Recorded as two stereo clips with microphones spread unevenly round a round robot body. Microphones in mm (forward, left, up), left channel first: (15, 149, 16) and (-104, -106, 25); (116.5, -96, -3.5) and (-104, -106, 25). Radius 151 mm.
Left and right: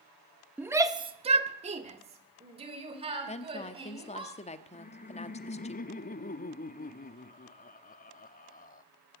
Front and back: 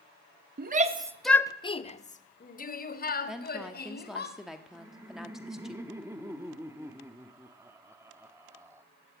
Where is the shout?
160° left, 1.2 m; by 4.3 s 40° right, 5 m.